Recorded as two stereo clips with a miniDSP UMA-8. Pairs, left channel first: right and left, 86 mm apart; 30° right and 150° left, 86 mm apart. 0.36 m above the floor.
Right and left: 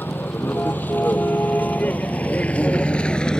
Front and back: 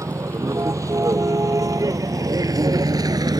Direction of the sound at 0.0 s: 155° right.